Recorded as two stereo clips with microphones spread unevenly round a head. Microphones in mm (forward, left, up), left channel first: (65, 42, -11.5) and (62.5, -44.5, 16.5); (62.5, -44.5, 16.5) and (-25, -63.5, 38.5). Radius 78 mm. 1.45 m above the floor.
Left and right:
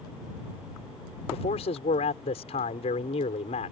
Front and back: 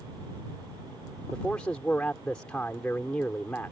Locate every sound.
1.3 s a man speaking: 95° left